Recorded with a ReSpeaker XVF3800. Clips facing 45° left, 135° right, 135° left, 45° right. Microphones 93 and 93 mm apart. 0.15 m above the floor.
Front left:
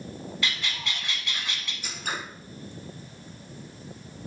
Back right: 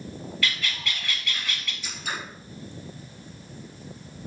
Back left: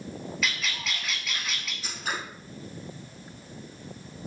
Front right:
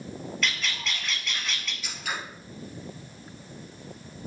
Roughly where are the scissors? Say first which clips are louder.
Front left 1 dB, back left 2 dB; left.